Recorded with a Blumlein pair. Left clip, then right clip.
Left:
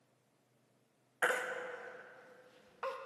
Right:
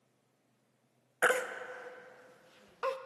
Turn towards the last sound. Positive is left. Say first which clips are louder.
# right 4 dB
turn(degrees=-20)